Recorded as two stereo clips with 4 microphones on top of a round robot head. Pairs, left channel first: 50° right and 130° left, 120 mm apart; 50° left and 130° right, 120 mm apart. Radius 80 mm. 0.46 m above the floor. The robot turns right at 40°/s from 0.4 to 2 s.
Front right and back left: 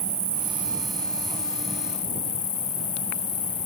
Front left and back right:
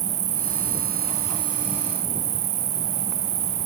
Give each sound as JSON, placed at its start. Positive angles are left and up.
{"t": 0.0, "sound": "an insect", "azimuth_deg": -160}